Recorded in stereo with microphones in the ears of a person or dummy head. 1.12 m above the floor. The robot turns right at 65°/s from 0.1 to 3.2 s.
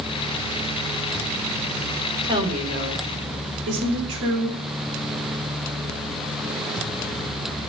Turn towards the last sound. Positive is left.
turn(degrees=-100)